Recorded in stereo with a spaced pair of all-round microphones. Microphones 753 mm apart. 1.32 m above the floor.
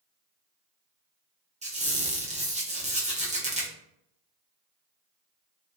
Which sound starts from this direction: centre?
A squeak, at 1.6 s.